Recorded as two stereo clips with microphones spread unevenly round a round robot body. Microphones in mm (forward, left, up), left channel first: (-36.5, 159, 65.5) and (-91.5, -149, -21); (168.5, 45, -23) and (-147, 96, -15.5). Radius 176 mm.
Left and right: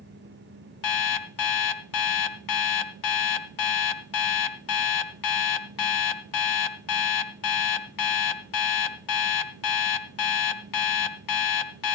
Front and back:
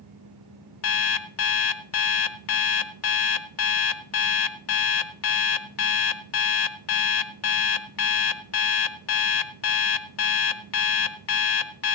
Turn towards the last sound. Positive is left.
turn(degrees=40)